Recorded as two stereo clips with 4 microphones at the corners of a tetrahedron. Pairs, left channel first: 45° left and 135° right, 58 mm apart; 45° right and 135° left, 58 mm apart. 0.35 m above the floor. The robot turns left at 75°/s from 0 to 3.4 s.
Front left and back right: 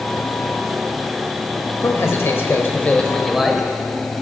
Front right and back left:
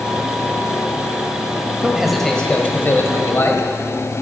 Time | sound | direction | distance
1.8 | a man speaking | 70° left | 1.5 m